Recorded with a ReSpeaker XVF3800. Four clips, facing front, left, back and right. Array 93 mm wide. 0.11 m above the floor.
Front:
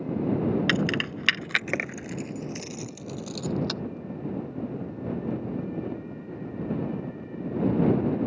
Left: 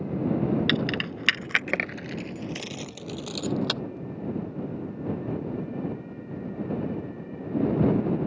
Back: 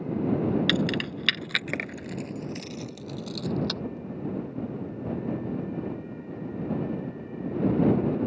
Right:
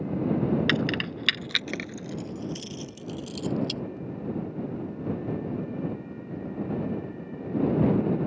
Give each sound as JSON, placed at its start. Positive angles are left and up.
{"t": 0.7, "sound": "keys jangling", "azimuth_deg": -30}